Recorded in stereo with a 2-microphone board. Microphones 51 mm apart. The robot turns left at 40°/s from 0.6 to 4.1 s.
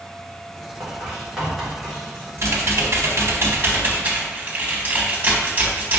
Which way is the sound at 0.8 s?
35° right (ahead or behind).